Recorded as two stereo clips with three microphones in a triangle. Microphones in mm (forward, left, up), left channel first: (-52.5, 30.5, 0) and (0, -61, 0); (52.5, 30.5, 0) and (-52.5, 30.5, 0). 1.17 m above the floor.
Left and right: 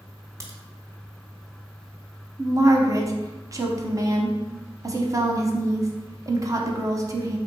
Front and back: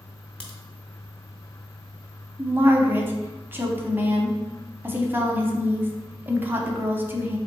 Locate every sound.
0.4 s a crack: 70° right, 0.9 m
2.4 s a woman speaking: 115° right, 0.7 m